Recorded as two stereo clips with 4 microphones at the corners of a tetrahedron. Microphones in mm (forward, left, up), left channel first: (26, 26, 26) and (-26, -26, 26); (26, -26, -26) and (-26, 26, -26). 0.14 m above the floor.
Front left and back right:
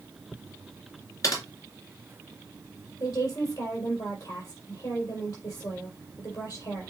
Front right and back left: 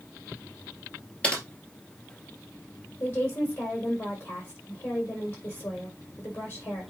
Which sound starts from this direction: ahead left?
Typing on a keyboard, at 1.2 s.